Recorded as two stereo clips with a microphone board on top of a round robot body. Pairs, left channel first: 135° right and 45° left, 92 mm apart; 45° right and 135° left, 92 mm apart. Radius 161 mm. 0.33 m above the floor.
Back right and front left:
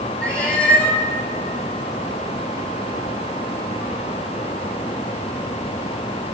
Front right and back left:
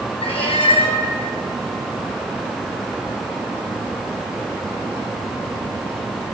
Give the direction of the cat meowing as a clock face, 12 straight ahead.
2 o'clock.